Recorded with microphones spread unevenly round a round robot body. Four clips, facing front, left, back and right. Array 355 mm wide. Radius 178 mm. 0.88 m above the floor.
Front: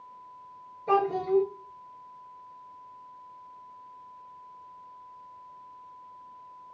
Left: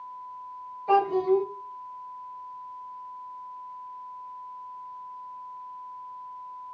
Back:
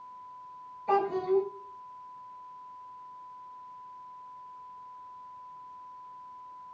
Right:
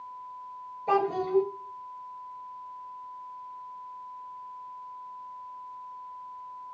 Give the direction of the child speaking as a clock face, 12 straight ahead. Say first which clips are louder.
Left 4 dB, front 2 dB; 1 o'clock.